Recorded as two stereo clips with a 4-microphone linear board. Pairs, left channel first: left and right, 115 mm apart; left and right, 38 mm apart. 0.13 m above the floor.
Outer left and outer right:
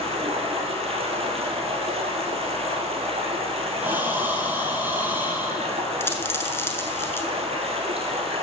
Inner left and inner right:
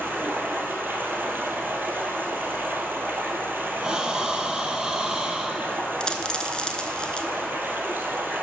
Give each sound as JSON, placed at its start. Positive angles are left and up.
{"t": 0.0, "sound": "running water", "side_deg": -60, "distance_m": 1.2}
{"t": 3.8, "sound": "breathing", "side_deg": -15, "distance_m": 0.8}
{"t": 6.0, "sound": "a dropped coin", "side_deg": 20, "distance_m": 0.6}